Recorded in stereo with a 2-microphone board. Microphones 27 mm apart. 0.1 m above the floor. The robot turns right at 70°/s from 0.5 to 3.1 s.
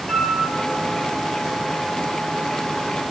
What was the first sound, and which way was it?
A flute, 15° left (ahead or behind).